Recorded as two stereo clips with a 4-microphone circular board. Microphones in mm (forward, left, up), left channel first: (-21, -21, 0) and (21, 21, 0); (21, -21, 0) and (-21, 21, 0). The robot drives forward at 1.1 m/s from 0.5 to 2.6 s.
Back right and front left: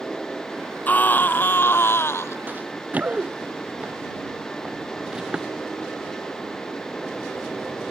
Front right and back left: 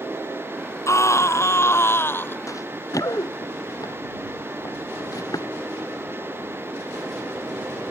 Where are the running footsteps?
15° right; by 5.5 s 35° right.